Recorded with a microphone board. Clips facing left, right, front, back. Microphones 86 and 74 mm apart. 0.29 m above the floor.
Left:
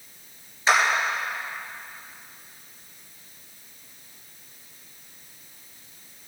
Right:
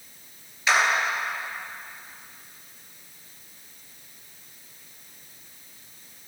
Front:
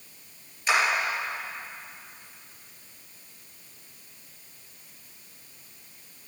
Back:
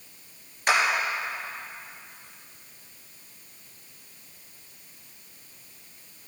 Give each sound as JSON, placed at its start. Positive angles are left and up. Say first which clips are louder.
{"t": 0.7, "sound": "a clap", "louder": "left 2 dB, back 1 dB", "azimuth_deg": 150, "distance_m": 3.5}